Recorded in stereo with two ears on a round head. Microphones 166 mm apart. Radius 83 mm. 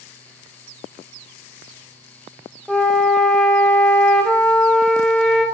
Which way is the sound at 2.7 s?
Centre (ahead or behind).